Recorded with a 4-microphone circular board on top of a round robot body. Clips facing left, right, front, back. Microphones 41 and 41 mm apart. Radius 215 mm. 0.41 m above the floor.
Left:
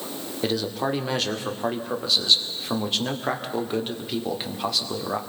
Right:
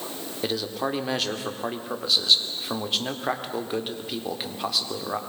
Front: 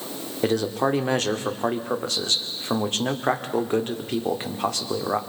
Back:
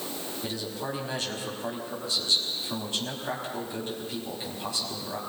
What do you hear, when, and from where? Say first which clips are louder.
0.4 s a man speaking: left 2 dB, front 14 dB; straight ahead, 2 m